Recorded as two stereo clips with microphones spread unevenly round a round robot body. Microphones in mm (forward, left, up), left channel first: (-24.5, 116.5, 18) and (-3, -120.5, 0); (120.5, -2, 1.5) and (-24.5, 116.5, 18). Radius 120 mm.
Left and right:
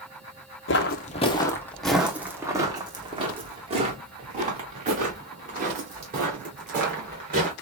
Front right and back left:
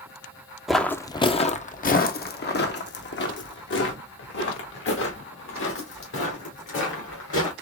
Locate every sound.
0.7 s footsteps: 55° left, 0.7 m; by 7.5 s 30° right, 4 m